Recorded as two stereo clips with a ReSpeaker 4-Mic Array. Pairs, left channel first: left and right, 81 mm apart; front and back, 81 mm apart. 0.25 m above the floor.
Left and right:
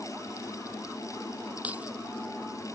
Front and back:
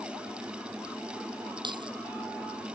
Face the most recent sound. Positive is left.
turn(degrees=-160)